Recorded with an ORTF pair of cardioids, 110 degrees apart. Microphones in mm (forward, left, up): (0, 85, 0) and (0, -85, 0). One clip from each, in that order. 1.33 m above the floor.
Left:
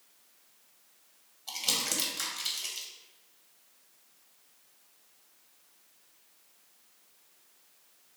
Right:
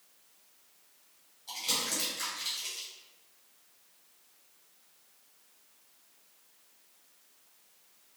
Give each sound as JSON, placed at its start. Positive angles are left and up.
{"t": 1.5, "sound": "crumpling", "azimuth_deg": 45, "distance_m": 1.2}